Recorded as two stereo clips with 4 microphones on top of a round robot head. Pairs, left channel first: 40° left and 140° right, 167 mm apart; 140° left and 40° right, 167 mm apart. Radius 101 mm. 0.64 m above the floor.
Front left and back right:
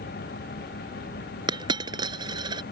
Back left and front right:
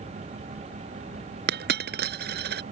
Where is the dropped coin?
70° right.